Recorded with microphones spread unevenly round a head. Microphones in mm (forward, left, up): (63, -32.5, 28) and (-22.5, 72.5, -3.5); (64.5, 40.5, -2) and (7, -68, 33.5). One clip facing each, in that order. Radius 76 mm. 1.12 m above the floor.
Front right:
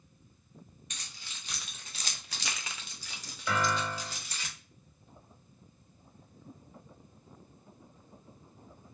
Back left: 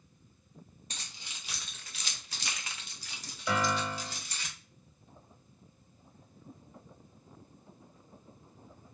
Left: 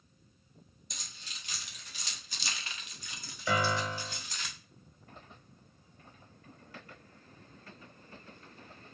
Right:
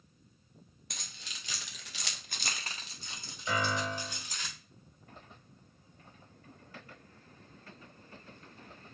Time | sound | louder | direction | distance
0.9 | keys jangling | back left 2 dB, right 1 dB | 165° right | 0.8 m
3.5 | a piano | even, left 2 dB | 55° left | 1.6 m